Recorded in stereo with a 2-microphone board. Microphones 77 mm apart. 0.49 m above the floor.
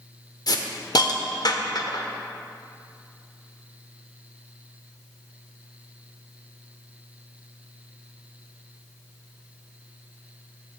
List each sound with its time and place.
0.5 s a hiss: 55° left (ahead or behind), 0.6 m